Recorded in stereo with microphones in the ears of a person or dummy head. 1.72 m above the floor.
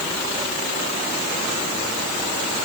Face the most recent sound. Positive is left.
No sound to turn to.